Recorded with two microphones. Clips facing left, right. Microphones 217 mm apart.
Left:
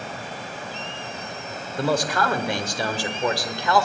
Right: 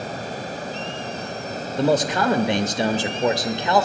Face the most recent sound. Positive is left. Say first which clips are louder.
# right 4 dB
turn(degrees=-20)  # may be behind; listen again after turning